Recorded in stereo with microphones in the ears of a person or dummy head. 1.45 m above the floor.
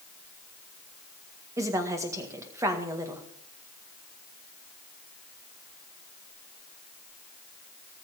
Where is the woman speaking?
15° right (ahead or behind), 1.9 m.